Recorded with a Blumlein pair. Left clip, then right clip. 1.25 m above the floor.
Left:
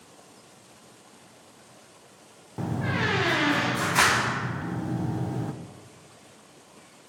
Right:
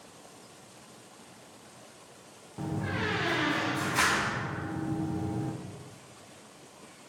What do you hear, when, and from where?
2.6 s a door slam: 70° left, 0.6 m